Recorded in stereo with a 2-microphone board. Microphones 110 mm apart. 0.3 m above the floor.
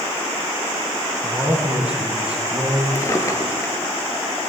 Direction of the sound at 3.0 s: 25° left (ahead or behind).